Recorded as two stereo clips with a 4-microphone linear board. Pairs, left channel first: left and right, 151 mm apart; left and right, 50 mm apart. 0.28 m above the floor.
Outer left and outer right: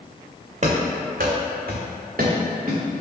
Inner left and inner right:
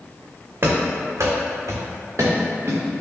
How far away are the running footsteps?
About 0.8 m.